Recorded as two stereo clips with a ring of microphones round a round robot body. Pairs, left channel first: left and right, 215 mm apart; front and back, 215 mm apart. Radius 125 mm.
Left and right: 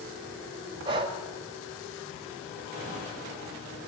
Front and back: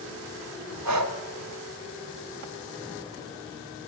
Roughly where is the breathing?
Behind.